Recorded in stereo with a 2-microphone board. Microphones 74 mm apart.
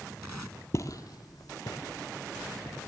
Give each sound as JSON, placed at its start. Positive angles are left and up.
{"t": 0.7, "sound": "footsteps", "side_deg": 40, "distance_m": 0.6}